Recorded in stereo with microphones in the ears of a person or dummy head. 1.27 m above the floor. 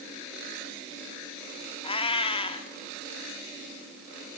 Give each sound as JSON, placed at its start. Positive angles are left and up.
{"t": 1.8, "sound": "a cat meowing", "side_deg": 30, "distance_m": 1.2}